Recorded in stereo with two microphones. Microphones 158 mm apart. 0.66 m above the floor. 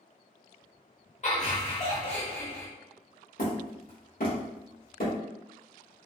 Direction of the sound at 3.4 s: 65° left (ahead or behind).